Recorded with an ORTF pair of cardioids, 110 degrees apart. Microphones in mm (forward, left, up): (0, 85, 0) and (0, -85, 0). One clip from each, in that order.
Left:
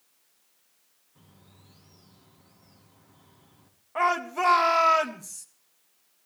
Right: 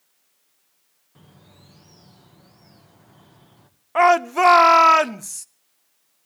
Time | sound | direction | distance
1.1 | a bird | 55° right | 2.0 m
4.0 | a shout | 45° right | 1.1 m